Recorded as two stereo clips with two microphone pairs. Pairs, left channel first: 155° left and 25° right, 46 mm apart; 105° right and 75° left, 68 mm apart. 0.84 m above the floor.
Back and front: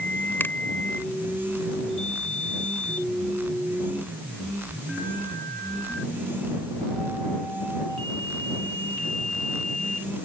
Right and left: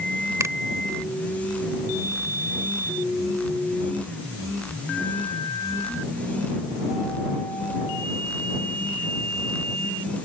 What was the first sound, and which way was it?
A finger snap, 115° left.